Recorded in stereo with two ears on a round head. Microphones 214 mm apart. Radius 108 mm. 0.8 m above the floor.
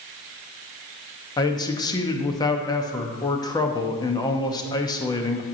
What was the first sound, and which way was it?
A man speaking, 15° left (ahead or behind).